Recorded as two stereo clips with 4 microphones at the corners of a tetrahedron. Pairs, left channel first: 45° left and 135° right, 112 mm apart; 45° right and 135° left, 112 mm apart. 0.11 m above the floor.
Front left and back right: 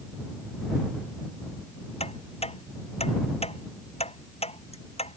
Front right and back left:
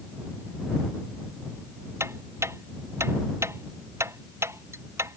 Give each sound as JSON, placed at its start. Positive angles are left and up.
{"t": 2.0, "sound": "ticking", "azimuth_deg": 70}